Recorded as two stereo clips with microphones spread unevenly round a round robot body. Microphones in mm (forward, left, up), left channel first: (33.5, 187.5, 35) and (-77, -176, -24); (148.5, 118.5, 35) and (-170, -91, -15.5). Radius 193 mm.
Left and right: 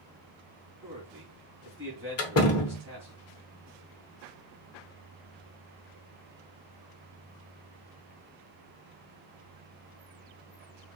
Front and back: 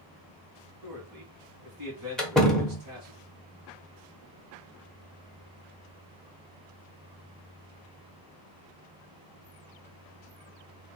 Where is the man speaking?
170° left, 3 m.